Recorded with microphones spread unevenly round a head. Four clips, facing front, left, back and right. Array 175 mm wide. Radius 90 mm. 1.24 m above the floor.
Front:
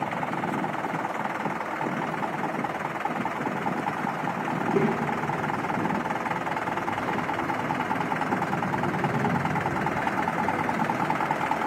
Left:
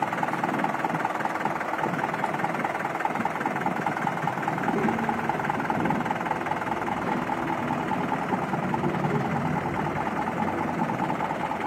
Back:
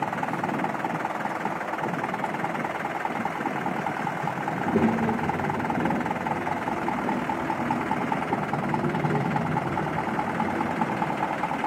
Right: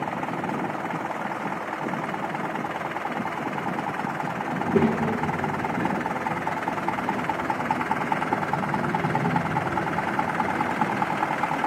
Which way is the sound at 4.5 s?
120° right.